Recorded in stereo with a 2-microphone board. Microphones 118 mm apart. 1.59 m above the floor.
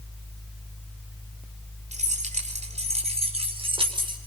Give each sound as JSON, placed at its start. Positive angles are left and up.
{"t": 1.9, "sound": "keys jangling", "side_deg": -85, "distance_m": 4.0}